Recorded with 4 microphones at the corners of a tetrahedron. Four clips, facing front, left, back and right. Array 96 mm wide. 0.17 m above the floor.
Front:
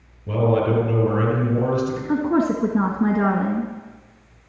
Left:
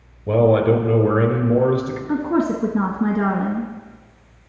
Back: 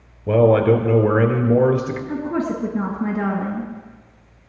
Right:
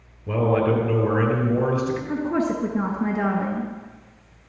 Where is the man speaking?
150° left, 4 m; by 2.0 s 170° left, 4 m.